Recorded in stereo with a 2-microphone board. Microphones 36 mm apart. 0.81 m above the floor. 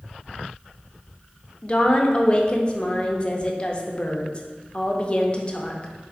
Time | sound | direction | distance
1.6 | a woman speaking | 30° left (ahead or behind) | 0.6 m